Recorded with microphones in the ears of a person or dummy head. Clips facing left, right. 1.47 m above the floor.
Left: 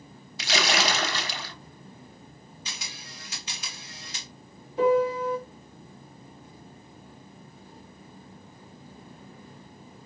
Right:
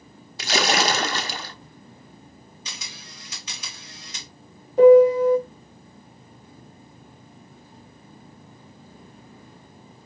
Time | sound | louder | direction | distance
0.4 | a splash | right 4 dB | 40° right (ahead or behind) | 0.6 m
2.6 | a camera shutter | even | 80° right | 2 m
4.8 | a piano | right 11 dB | 40° right (ahead or behind) | 0.9 m